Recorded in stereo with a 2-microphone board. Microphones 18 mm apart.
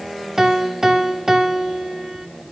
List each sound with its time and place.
0.4 s a piano: 30° right (ahead or behind), 1.2 m